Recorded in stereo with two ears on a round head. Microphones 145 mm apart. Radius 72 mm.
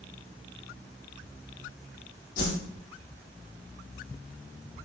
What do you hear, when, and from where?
2.4 s a whoosh: 55° left (ahead or behind), 2.5 m